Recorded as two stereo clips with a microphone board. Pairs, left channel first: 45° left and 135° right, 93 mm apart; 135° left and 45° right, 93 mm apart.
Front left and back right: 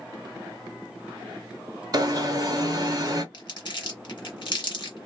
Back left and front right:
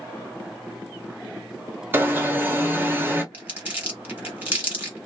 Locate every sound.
1.9 s an alarm: 105° right, 0.9 m
3.3 s crumpling: 20° left, 1.5 m